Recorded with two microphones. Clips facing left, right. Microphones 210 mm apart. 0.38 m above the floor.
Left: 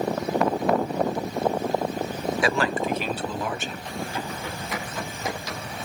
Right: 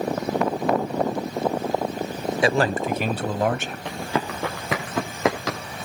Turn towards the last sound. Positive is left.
turn(degrees=-85)